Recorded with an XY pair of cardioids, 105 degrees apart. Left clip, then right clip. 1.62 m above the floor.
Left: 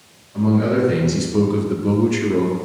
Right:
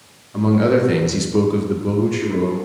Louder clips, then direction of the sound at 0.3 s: Right 3 dB; 65° right.